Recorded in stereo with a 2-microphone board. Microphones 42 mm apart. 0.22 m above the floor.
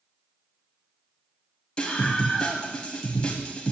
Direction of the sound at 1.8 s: 20° left (ahead or behind).